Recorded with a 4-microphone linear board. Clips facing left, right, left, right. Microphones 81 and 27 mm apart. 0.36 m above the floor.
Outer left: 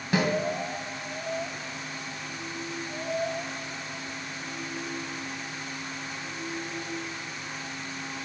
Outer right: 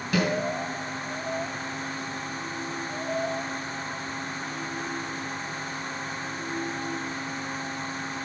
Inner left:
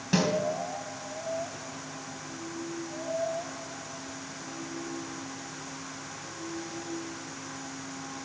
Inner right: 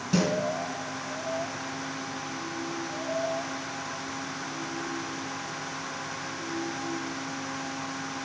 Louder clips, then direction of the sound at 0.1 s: Even, even; 30° left (ahead or behind).